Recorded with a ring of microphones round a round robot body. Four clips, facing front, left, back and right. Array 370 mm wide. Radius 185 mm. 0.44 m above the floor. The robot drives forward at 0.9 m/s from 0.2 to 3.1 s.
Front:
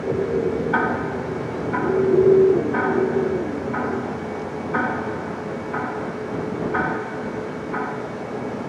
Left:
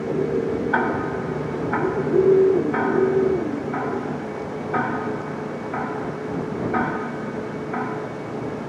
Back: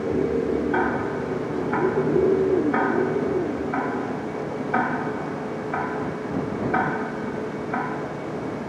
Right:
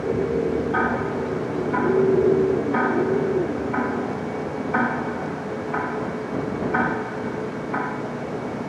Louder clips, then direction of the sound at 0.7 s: Even, front 1 dB; 50° left.